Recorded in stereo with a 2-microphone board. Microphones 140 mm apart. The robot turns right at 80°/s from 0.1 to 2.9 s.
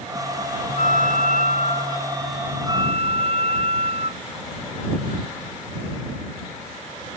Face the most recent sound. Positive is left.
turn(degrees=-135)